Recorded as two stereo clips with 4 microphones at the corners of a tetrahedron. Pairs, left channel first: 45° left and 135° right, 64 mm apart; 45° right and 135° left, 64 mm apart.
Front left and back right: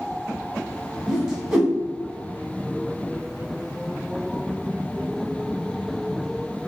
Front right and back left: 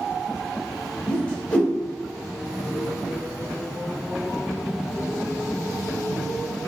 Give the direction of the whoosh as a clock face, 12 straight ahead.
2 o'clock.